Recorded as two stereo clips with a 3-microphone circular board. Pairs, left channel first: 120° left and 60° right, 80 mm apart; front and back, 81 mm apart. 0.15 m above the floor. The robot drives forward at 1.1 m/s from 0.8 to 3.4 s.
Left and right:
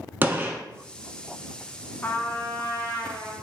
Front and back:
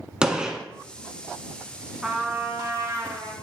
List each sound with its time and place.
0.2 s a gunshot: 105° right, 0.9 m
2.0 s a trumpet: 110° left, 1.0 m; by 3.3 s 165° left, 1.8 m